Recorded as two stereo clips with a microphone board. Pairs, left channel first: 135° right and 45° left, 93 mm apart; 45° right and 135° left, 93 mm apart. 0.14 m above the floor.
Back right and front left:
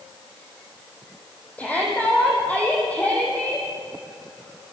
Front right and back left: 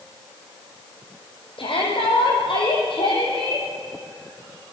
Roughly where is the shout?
Ahead right.